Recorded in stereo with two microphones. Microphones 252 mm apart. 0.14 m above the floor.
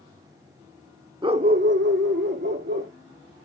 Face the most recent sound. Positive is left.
turn(degrees=-45)  # may be behind; listen again after turning